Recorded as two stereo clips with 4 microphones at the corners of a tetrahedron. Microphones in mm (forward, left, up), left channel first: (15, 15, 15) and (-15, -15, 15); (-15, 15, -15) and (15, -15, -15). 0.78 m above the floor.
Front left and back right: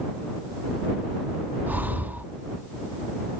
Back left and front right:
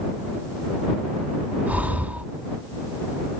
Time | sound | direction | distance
1.7 | breathing | 95° right | ?